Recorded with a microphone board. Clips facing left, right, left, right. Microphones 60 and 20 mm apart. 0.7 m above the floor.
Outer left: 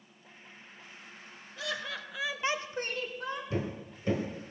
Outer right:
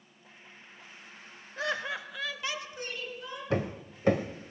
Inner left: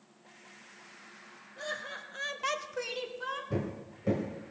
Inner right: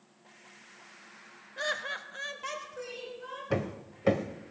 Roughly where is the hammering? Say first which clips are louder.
Outer right 3 dB, inner right 3 dB; right.